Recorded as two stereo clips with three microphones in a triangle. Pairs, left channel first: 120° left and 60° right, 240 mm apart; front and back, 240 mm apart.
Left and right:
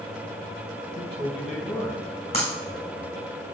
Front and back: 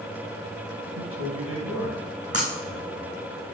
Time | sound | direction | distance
0.9 | a man speaking | straight behind | 3.5 m
2.3 | breaking glass | straight behind | 3.5 m